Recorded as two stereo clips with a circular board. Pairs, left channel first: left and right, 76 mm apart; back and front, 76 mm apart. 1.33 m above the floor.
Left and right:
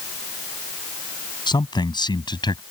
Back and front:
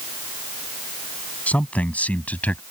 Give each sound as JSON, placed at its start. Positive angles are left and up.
{"t": 1.5, "sound": "a man speaking", "azimuth_deg": 110}